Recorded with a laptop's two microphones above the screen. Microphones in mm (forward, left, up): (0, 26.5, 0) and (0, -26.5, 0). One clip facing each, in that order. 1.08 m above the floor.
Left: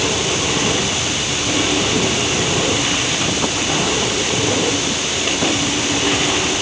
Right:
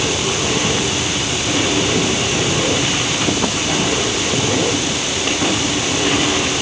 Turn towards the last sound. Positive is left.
No sound to turn to.